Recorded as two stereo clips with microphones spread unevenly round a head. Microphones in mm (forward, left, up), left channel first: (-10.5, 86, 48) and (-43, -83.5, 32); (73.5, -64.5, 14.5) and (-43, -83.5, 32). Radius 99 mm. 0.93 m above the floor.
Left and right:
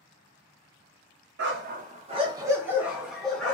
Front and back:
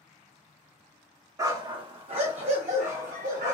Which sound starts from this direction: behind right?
A dog barking, at 1.4 s.